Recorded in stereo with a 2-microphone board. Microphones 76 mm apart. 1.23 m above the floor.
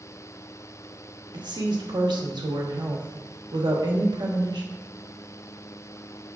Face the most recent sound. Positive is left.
turn(degrees=-70)  # may be behind; listen again after turning